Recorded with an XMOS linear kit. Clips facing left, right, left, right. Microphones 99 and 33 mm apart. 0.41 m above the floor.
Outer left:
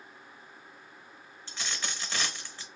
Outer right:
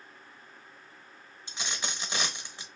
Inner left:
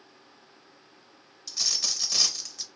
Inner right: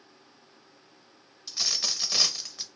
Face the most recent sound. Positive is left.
turn(degrees=-20)  # may be behind; listen again after turning